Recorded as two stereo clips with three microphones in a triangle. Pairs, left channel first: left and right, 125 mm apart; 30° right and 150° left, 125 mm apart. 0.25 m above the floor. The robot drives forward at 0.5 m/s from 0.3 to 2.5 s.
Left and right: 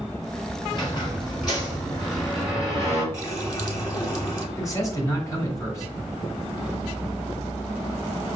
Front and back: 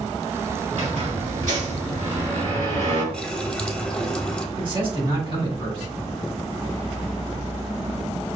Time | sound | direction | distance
0.7 | a squeak | 140° left | 1.8 m
3.1 | a running tap | 45° left | 1.0 m
4.6 | a man speaking | 140° left | 1.5 m